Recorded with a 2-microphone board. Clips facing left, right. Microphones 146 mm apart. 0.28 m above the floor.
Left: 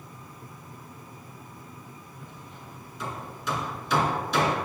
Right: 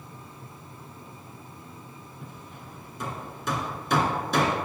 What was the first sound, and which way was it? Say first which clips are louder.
Hammering: right 2 dB; 50° right (ahead or behind).